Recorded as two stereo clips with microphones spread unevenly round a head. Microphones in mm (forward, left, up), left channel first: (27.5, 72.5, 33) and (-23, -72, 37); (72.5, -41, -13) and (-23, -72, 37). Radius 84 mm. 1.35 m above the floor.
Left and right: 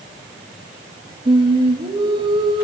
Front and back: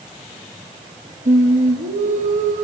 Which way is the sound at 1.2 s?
170° right.